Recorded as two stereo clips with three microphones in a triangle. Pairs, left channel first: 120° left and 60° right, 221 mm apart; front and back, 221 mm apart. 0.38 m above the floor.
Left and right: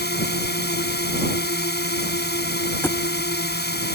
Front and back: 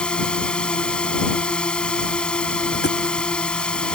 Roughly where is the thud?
Ahead left.